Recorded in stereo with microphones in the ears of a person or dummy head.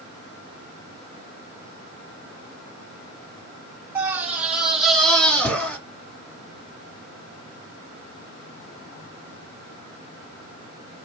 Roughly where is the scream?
Centre.